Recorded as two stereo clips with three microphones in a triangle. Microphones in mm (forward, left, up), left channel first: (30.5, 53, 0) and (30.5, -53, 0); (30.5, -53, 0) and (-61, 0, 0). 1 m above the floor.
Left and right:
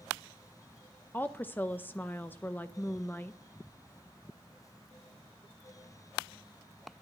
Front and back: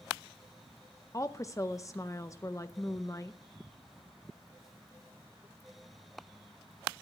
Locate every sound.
1.1 s a woman speaking: 20° left, 0.5 m